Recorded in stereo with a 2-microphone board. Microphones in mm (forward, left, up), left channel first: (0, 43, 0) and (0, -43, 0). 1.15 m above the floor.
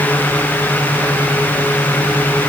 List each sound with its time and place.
Only background noise.